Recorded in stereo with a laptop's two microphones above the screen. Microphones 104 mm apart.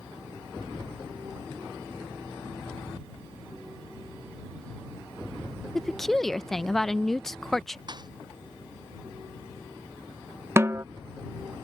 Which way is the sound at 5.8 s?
5° left (ahead or behind).